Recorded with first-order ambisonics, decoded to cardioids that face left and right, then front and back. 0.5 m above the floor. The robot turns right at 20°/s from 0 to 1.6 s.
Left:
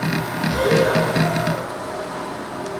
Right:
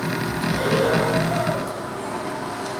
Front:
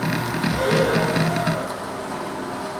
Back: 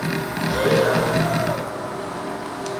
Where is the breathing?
140° left, 1.5 m; by 1.7 s 165° left, 1.5 m.